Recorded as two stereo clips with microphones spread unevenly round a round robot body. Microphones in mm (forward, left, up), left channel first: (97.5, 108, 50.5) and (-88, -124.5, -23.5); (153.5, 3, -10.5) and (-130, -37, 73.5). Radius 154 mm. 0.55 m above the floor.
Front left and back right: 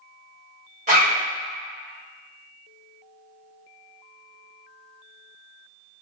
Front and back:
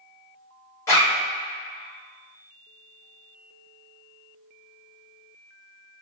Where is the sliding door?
I don't hear a sliding door.